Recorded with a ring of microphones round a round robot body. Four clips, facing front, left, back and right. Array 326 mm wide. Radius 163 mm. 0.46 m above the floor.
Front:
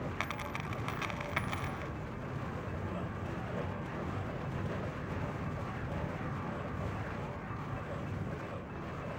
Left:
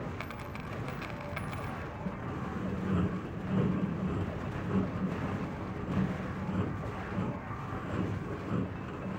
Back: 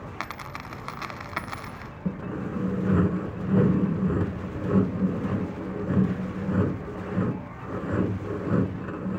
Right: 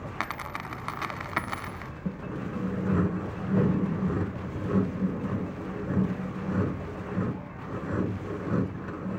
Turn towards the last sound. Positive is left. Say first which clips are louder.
# right 5 dB, back 10 dB
turn(degrees=-165)